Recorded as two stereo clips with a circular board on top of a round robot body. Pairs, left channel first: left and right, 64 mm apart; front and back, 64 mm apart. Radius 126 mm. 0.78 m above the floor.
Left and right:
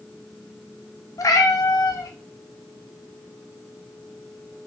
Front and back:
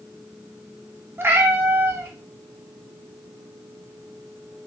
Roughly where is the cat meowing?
Behind left.